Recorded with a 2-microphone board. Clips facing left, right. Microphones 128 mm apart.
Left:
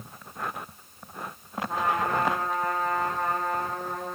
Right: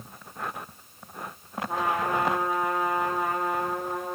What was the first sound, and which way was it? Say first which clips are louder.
A trumpet: even; 10° right (ahead or behind).